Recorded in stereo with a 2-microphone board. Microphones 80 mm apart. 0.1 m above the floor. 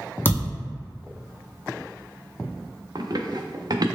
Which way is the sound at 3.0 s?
55° right (ahead or behind).